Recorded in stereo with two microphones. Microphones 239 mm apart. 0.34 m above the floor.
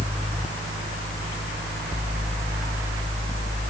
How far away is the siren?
No siren in this recording.